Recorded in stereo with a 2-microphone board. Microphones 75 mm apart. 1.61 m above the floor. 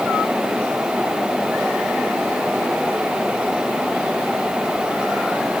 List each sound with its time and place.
Only background noise.